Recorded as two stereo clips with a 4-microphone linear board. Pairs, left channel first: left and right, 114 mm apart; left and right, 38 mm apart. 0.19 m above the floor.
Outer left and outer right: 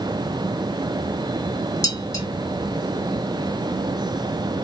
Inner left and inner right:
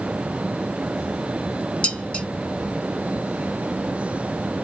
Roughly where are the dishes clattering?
Left.